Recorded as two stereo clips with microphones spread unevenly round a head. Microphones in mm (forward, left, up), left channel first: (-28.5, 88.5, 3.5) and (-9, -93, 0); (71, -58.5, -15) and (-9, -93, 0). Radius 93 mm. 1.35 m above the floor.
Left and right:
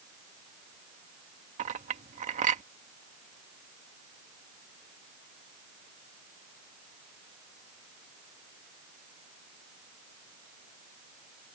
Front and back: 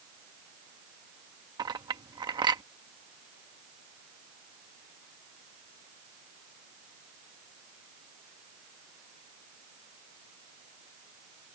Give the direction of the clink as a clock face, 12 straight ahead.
4 o'clock.